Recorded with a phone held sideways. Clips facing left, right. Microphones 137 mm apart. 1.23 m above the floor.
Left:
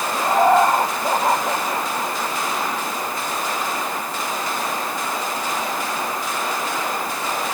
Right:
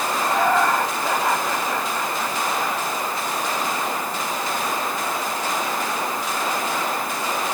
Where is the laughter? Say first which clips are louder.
Left 5 dB; 25° left (ahead or behind).